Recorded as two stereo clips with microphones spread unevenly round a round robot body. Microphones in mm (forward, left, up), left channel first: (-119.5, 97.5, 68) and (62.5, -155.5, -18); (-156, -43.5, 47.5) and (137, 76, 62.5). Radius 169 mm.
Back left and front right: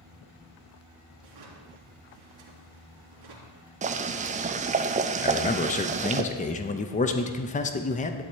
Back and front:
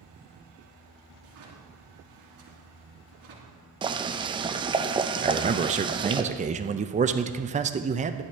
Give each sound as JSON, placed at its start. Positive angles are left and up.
{"t": 1.2, "sound": "a drawer", "azimuth_deg": -25, "distance_m": 3.0}
{"t": 3.8, "sound": "boiling", "azimuth_deg": -50, "distance_m": 0.6}
{"t": 5.2, "sound": "a man speaking", "azimuth_deg": 55, "distance_m": 0.6}